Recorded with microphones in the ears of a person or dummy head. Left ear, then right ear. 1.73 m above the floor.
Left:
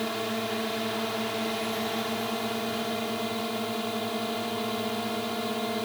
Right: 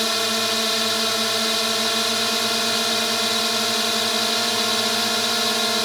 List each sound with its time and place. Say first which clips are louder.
0.0 s a drone: right 10 dB; 60° right (ahead or behind)